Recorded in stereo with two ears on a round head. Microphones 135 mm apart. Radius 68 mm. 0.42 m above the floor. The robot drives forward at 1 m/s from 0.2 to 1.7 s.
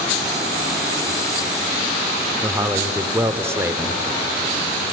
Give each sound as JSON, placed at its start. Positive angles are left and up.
{"t": 2.4, "sound": "a man speaking", "side_deg": -15, "distance_m": 0.9}